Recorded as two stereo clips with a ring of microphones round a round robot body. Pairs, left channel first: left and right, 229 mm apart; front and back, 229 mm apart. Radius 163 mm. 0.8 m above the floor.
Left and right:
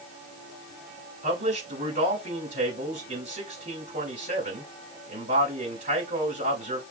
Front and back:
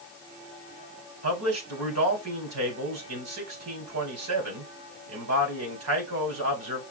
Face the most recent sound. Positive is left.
turn(degrees=-155)